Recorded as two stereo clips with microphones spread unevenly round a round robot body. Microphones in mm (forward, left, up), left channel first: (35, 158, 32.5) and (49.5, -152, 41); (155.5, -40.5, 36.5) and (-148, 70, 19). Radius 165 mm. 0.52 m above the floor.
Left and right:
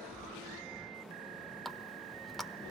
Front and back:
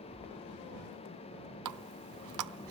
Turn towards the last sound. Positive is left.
turn(degrees=180)